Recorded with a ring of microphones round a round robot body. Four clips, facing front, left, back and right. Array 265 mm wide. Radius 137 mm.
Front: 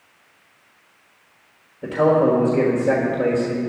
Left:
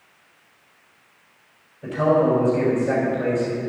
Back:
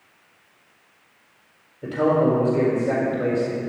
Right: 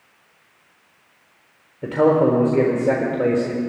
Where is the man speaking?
75° right, 1.5 m.